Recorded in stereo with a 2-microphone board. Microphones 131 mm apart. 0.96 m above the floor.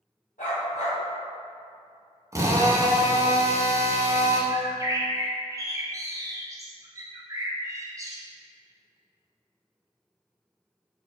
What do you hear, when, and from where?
0.4 s a dog barking: 80° left, 1.8 m
2.3 s a drill: 25° right (ahead or behind), 0.5 m
4.5 s a bird: 25° right (ahead or behind), 0.5 m